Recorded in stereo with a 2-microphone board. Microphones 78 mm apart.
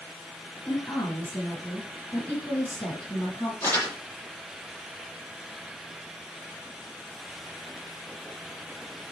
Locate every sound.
0.7 s a woman speaking: 15° left (ahead or behind), 6.5 m
3.6 s crumpling: 35° left (ahead or behind), 10 m